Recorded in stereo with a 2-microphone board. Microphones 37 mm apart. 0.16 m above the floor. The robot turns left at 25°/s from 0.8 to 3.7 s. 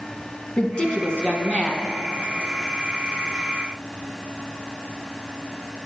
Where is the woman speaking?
30° left (ahead or behind), 1.2 m; by 1.9 s 25° left (ahead or behind), 1.2 m.